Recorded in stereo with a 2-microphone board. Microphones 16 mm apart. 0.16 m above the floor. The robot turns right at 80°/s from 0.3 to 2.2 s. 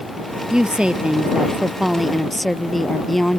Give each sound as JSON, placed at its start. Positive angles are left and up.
{"t": 0.5, "sound": "a woman speaking", "azimuth_deg": -125}